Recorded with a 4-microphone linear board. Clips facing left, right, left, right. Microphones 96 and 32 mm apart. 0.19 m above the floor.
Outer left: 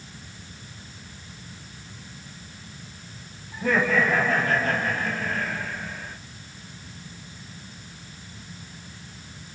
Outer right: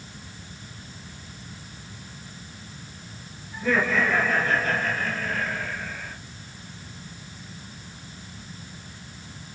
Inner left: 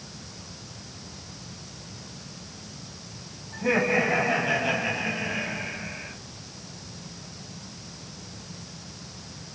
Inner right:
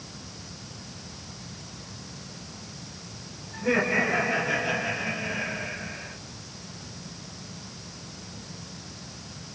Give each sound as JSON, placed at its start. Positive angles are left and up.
{"t": 3.5, "sound": "laughter", "side_deg": 50, "distance_m": 4.0}